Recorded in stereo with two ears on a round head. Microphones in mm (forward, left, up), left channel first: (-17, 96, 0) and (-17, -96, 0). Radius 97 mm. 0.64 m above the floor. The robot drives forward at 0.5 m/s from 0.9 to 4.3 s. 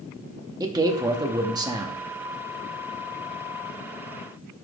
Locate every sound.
0.6 s a man speaking: 20° right (ahead or behind), 0.8 m